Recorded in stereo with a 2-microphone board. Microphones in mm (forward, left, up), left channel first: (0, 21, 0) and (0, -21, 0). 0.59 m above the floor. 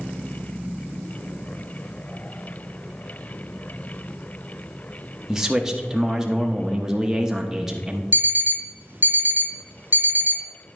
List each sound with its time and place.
5.3 s a man speaking: 10° right (ahead or behind), 0.8 m
8.1 s an alarm clock: 50° right (ahead or behind), 0.8 m